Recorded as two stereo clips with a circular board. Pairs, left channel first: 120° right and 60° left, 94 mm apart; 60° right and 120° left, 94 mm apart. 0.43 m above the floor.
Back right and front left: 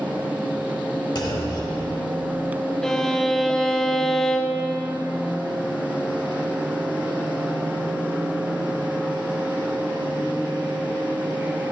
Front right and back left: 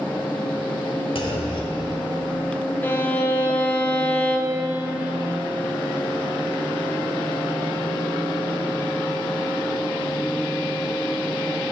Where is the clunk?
80° right, 1.0 m.